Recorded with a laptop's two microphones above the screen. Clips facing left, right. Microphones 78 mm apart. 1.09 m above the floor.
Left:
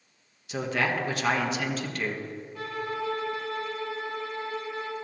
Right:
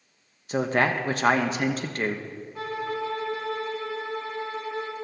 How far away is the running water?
No running water in this recording.